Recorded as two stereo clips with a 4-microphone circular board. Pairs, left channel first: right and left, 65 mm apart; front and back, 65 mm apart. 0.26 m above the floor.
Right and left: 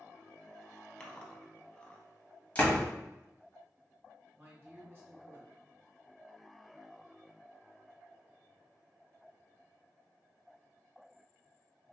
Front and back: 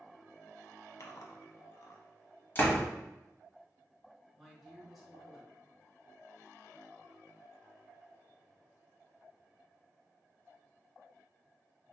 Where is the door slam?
35° right, 1.0 m.